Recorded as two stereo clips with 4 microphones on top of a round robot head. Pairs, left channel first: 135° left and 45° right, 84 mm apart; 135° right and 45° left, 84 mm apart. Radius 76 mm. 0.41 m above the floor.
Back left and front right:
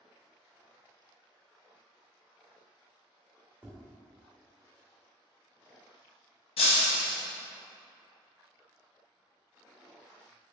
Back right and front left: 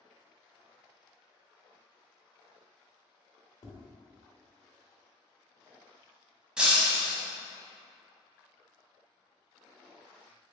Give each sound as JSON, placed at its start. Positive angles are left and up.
{"t": 3.6, "sound": "tapping", "azimuth_deg": -115, "distance_m": 1.2}
{"t": 6.6, "sound": "breaking glass", "azimuth_deg": 120, "distance_m": 0.6}